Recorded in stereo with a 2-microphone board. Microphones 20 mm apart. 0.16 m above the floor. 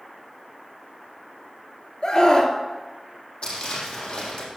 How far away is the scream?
About 2.5 m.